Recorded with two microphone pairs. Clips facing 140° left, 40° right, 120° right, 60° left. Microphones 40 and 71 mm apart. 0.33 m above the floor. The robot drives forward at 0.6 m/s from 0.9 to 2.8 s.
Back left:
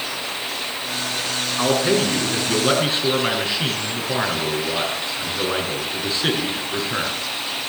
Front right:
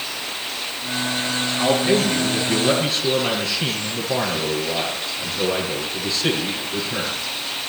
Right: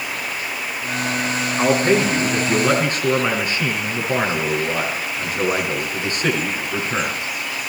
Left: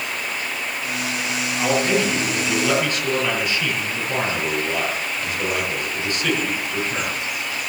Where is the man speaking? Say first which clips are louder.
Even, right 3 dB; 165° right, 5 m.